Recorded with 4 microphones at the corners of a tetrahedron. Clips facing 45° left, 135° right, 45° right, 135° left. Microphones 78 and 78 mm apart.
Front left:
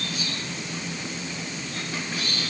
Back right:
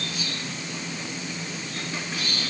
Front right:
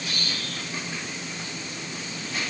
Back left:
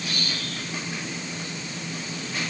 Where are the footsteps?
No footsteps in this recording.